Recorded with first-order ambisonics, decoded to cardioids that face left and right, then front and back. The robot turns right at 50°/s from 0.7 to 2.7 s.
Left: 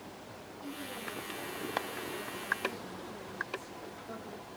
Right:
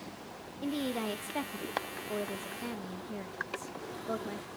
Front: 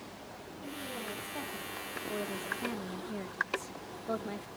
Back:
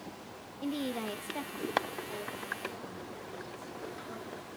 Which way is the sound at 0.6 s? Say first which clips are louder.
Right 8 dB, back 5 dB; 135° right.